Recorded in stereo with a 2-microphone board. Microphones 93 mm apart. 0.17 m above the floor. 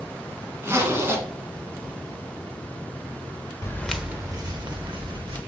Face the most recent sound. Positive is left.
turn(degrees=-65)  # may be behind; listen again after turning